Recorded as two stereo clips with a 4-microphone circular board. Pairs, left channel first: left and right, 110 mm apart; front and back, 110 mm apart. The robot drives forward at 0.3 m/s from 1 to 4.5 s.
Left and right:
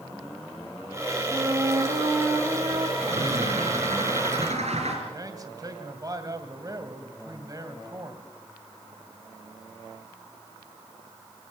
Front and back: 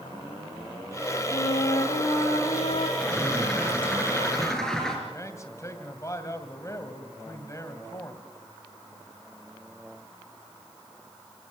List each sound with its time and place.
1.3 s a flute: 25° right, 4 m; by 2.9 s 30° right, 4 m
3.0 s a bird: 80° right, 4.5 m; by 5.0 s 85° right, 4.5 m
5.1 s a man speaking: 50° right, 2 m